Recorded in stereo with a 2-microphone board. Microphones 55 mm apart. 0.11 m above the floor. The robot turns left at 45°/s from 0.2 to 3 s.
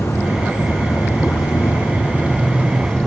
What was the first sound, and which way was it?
An insect, 125° left.